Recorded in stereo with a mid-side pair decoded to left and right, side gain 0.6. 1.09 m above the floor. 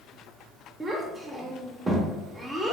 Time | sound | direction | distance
0.8 | a child speaking | 20° right | 0.5 m